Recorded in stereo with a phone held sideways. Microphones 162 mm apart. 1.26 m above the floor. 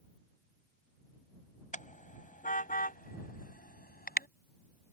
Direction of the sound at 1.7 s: 50° left (ahead or behind).